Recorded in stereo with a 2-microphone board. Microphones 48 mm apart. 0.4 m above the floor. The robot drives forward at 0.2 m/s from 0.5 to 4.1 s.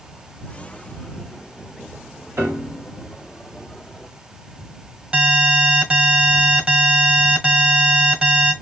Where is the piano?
55° right (ahead or behind), 2.0 m.